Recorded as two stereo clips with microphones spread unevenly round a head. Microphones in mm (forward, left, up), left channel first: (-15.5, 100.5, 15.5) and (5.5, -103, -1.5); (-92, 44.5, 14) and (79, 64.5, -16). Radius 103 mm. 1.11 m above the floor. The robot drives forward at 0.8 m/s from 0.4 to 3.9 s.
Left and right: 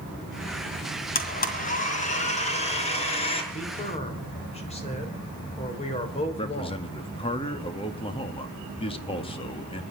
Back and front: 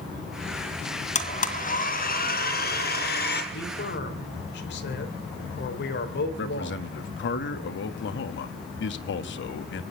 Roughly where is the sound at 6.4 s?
Behind.